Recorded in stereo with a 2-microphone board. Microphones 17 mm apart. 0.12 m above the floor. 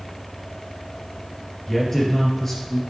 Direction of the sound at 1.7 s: 25° left (ahead or behind).